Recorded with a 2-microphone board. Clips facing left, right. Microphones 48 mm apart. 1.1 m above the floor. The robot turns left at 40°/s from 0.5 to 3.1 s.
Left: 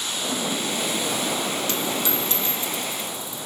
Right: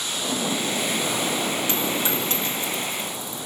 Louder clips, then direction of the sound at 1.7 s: Right 1 dB; 20° right (ahead or behind).